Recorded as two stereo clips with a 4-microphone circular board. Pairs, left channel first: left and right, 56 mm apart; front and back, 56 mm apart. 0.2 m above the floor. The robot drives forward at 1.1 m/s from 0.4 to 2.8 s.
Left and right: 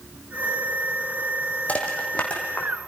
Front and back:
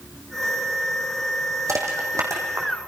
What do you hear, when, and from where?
1.7 s crushing: 155° left, 4.5 m; by 2.7 s 160° left, 5.5 m